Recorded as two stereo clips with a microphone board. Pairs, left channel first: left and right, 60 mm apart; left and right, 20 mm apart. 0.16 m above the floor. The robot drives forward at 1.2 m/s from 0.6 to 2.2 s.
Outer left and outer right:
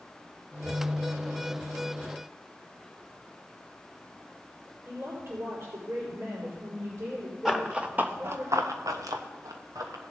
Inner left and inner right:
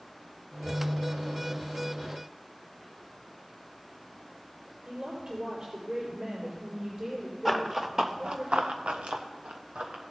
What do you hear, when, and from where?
4.8 s a woman speaking: 50° right (ahead or behind), 4.5 m
7.5 s running footsteps: 5° right (ahead or behind), 1.6 m; by 10.0 s 70° right (ahead or behind), 2.5 m